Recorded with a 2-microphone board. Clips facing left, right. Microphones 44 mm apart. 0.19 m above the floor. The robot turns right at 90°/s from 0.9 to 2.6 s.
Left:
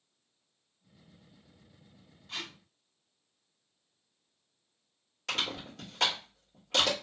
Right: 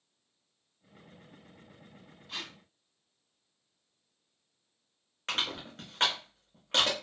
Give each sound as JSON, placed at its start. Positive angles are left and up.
{"t": 2.3, "sound": "tape being pulled", "side_deg": -5, "distance_m": 0.6}
{"t": 5.3, "sound": "crushing", "side_deg": -40, "distance_m": 1.6}